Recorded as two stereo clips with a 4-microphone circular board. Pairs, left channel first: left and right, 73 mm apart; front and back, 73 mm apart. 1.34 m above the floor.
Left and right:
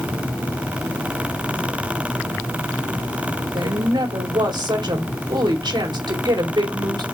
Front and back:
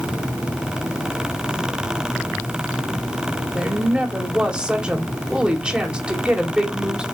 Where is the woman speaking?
105° right, 3.5 m.